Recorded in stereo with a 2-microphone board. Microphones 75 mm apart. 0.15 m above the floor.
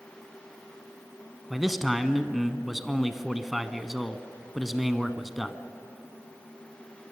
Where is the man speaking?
Centre (ahead or behind), 1.0 m.